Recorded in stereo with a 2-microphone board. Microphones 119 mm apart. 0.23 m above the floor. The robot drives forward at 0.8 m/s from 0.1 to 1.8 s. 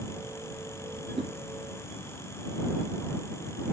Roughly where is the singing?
No singing in this recording.